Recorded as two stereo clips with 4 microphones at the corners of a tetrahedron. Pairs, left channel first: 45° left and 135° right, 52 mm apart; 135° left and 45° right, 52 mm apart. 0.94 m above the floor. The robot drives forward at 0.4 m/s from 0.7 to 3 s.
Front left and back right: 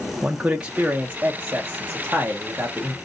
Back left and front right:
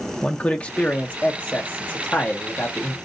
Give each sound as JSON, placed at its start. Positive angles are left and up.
{"t": 0.2, "sound": "a man speaking", "azimuth_deg": 175, "distance_m": 0.7}